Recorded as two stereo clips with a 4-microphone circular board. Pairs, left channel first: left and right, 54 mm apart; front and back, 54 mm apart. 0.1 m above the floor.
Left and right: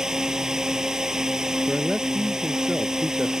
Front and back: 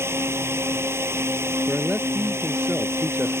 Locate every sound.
0.0 s a drone: 165° right
1.7 s a man speaking: 150° right